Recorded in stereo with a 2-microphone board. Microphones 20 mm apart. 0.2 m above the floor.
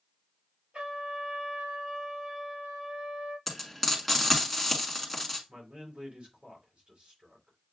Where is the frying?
Centre (ahead or behind), 1.6 m.